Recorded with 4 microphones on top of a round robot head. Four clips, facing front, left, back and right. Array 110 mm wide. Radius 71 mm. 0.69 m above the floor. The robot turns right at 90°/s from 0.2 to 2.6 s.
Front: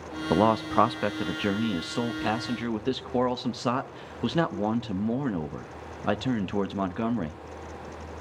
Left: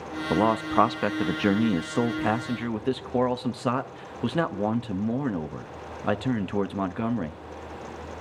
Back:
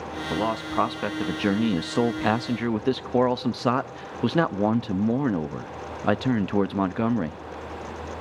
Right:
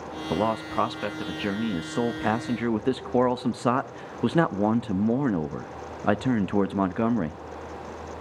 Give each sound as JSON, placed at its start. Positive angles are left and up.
{"t": 0.3, "sound": "a man speaking", "azimuth_deg": 20, "distance_m": 0.8}